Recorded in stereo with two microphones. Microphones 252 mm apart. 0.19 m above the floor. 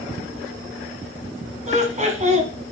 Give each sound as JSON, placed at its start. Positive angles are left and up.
{"t": 1.7, "sound": "laughter", "side_deg": -30, "distance_m": 1.5}